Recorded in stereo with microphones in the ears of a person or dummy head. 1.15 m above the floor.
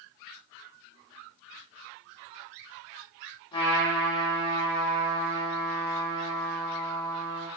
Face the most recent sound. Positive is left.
turn(degrees=25)  # may be behind; listen again after turning